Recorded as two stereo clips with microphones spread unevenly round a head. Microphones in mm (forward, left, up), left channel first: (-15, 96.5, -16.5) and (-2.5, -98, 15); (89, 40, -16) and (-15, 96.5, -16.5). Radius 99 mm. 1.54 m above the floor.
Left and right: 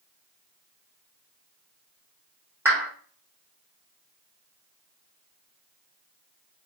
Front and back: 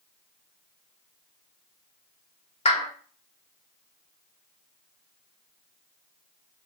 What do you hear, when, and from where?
2.6 s a clap: 10° right, 1.8 m